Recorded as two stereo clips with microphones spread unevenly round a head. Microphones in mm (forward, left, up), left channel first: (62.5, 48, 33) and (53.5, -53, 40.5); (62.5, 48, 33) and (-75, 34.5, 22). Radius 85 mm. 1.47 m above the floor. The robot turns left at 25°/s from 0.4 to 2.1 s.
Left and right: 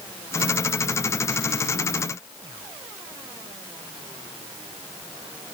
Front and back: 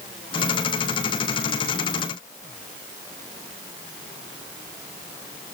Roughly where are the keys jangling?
No keys jangling in this recording.